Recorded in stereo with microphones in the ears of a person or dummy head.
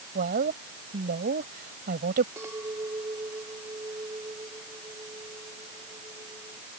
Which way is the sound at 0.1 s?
50° right (ahead or behind).